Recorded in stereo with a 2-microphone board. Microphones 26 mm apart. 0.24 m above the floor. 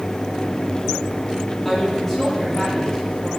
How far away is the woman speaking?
About 6.5 m.